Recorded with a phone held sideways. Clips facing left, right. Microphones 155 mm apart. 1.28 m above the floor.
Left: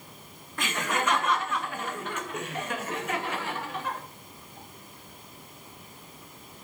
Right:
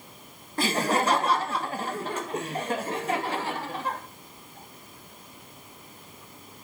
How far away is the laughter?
About 0.6 m.